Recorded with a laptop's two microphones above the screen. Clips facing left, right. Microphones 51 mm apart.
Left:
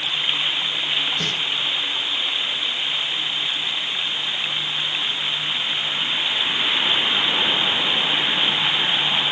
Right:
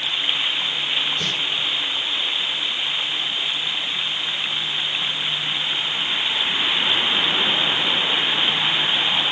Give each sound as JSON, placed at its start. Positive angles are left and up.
{"t": 1.2, "sound": "a snare drum", "side_deg": 65, "distance_m": 3.0}